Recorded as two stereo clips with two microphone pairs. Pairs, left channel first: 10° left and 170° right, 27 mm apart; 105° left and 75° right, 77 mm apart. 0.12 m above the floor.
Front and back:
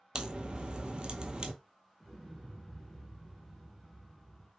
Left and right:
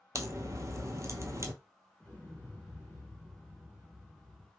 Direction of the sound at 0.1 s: 120° right.